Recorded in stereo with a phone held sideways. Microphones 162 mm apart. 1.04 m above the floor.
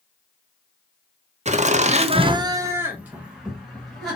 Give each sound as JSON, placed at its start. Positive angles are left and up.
{"t": 1.4, "sound": "laughter", "side_deg": -45, "distance_m": 0.7}